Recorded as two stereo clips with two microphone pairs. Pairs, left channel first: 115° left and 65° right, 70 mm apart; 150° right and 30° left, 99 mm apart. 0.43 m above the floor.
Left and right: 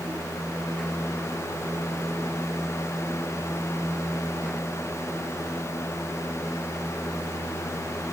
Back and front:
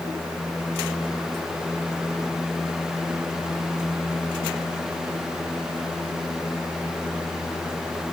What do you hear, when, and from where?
Only background noise.